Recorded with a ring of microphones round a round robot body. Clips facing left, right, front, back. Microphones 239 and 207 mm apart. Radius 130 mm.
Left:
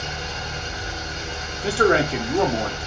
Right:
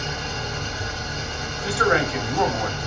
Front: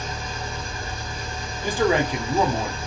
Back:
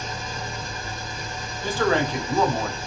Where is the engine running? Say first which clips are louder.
Right 2 dB, front 1 dB; 45° right, 2.5 m.